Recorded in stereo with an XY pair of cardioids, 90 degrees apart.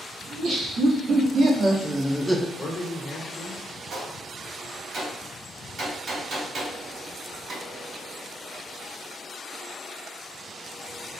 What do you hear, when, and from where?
0.3 s laughter: 65° right, 1.7 m; by 2.5 s 10° left, 0.5 m
2.6 s a man speaking: 40° left, 0.9 m
3.9 s a gunshot: 60° right, 1.8 m